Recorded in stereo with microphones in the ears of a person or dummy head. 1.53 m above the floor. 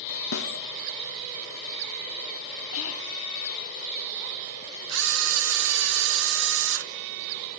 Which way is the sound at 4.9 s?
70° right (ahead or behind).